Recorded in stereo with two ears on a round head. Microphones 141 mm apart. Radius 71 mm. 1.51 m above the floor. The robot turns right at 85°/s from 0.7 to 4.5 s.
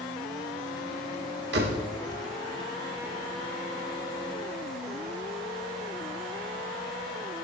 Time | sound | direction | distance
1.5 | a door slam | 75° right (ahead or behind) | 2.5 m